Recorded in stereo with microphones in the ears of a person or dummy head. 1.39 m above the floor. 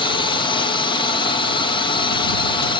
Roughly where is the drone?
Left.